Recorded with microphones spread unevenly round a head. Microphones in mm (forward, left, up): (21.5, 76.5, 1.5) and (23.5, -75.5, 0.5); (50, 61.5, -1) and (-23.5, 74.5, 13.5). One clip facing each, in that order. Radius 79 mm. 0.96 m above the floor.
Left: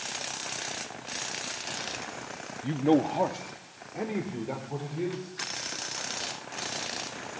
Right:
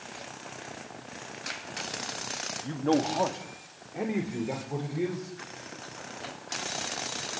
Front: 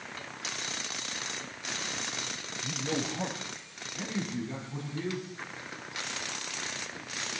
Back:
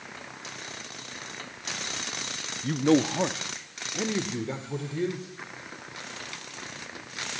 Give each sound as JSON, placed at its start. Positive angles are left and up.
{"t": 2.6, "sound": "a man speaking", "azimuth_deg": 160, "distance_m": 1.2}